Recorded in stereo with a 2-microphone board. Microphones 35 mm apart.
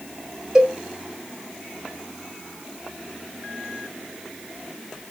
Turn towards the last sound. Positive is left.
turn(degrees=-25)  # may be behind; listen again after turning